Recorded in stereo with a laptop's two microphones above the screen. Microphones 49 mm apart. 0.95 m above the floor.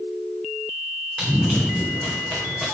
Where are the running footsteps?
20° right (ahead or behind), 3 m; by 2.6 s 5° right (ahead or behind), 4.5 m.